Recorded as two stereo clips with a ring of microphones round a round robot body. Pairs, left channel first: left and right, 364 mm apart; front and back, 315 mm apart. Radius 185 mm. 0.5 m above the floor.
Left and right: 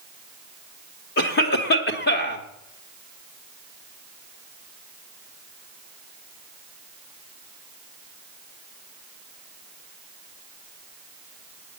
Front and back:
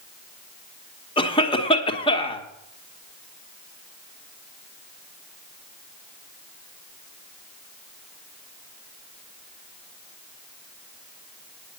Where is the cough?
60° left, 1.2 m.